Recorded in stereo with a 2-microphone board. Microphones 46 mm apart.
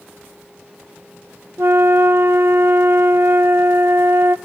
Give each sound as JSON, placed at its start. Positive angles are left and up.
{"t": 1.6, "sound": "a flute", "side_deg": -60, "distance_m": 0.5}